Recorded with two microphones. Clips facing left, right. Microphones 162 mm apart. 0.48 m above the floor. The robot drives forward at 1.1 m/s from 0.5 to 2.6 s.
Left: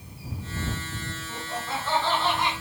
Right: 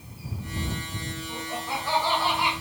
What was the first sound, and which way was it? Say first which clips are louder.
Laughter: even; 5° right (ahead or behind).